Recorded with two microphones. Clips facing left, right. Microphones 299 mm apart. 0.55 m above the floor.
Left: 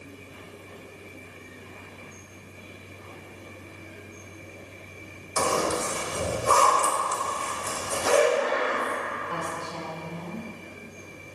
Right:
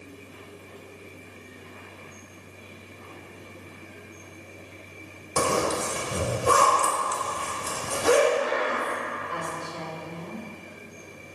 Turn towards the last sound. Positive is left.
turn(degrees=75)  # may be behind; listen again after turning